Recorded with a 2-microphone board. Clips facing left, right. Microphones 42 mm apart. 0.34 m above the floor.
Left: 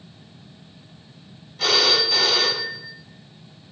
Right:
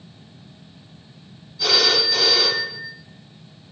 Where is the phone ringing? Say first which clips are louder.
Even; 60° left (ahead or behind), 1.4 m.